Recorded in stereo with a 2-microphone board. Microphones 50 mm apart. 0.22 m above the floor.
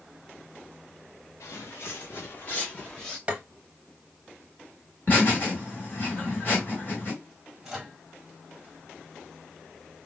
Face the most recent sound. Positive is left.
turn(degrees=-5)  # may be behind; listen again after turning